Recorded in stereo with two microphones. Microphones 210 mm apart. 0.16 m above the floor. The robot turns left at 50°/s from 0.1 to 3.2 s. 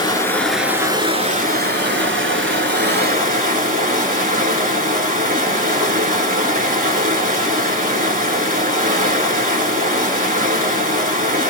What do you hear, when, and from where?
0.0 s running water: 20° left, 0.7 m; by 11.5 s 135° right, 0.7 m